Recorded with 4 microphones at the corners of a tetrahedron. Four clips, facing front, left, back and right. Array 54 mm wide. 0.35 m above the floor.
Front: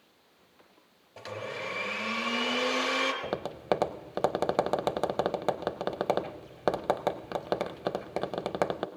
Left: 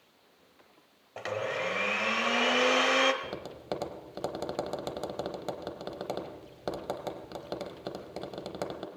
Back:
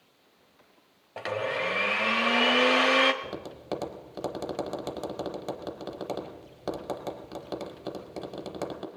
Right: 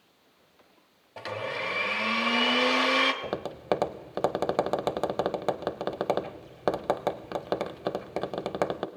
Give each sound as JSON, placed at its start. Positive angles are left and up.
{"t": 1.2, "sound": "a blender", "azimuth_deg": 160, "distance_m": 1.0}
{"t": 3.2, "sound": "tapping", "azimuth_deg": -40, "distance_m": 0.5}